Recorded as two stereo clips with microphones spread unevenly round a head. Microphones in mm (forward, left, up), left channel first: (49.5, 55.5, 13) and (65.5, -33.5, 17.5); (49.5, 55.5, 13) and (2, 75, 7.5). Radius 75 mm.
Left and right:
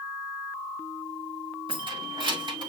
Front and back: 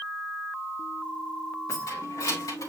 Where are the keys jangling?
55° right, 2 m; by 2.7 s 50° right, 3 m.